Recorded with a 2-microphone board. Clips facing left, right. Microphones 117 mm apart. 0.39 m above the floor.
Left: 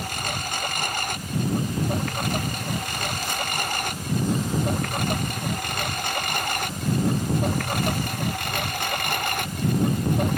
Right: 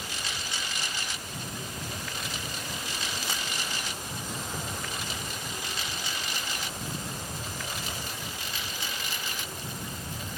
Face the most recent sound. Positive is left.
turn(degrees=65)  # may be behind; listen again after turning